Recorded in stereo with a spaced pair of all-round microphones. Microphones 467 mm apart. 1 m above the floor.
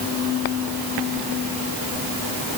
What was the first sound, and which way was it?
Only background noise.